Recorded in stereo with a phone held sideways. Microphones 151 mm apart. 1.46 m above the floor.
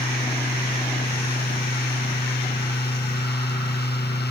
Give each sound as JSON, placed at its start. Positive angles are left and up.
{"t": 0.0, "sound": "a fan", "side_deg": 90}